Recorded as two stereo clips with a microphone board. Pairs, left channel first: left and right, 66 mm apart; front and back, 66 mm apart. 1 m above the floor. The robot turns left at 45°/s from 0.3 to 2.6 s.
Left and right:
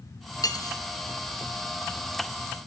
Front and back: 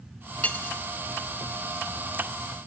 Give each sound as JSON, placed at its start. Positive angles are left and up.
{"t": 0.4, "sound": "cutlery clinking", "azimuth_deg": 70, "distance_m": 0.6}